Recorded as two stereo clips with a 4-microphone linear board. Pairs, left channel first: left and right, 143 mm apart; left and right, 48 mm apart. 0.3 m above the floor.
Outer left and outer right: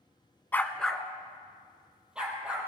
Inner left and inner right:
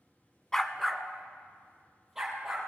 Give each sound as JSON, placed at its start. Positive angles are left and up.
{"t": 0.5, "sound": "a dog barking", "side_deg": 15, "distance_m": 0.6}